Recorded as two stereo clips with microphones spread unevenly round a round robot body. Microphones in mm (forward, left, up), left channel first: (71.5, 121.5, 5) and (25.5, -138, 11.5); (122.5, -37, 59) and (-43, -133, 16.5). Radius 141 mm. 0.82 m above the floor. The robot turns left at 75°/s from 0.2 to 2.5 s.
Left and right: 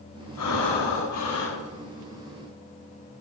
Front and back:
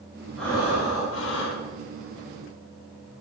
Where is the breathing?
120° left, 5 m; by 1.6 s 25° left, 5 m.